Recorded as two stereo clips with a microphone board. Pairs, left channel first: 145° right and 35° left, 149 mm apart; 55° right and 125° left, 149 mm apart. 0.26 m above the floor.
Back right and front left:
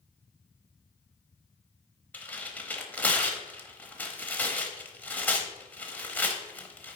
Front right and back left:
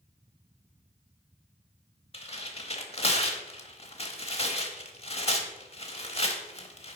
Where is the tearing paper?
70° right, 0.8 m.